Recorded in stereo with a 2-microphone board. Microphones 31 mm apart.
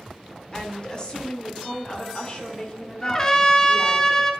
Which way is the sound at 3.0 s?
20° left (ahead or behind).